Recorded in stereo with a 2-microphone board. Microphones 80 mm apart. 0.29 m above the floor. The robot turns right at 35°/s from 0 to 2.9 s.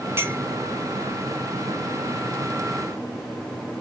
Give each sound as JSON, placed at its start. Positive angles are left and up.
{"t": 0.2, "sound": "a clink", "side_deg": -35, "distance_m": 0.8}